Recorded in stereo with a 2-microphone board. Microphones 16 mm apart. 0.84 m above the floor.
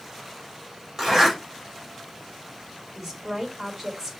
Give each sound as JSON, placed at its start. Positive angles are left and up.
{"t": 1.0, "sound": "a zipper", "side_deg": -30, "distance_m": 3.5}
{"t": 3.0, "sound": "a woman speaking", "side_deg": -35, "distance_m": 3.0}